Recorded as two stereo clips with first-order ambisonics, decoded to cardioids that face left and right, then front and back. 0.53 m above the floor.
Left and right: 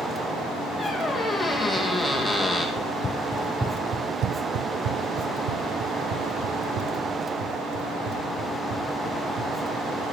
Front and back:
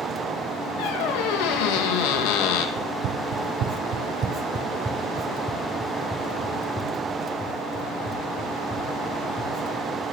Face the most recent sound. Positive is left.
turn(degrees=-80)